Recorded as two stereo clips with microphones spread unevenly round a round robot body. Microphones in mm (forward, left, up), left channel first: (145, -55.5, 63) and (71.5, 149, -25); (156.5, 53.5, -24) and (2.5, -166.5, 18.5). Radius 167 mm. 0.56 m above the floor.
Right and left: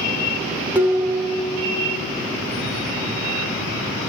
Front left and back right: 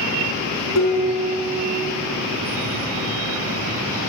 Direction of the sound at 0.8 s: 30° left.